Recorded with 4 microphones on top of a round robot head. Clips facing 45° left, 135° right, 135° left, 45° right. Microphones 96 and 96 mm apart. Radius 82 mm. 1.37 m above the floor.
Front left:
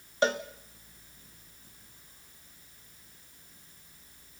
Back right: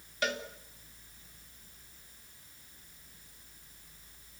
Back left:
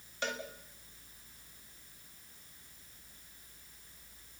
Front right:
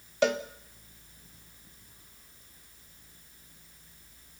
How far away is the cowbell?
About 0.9 m.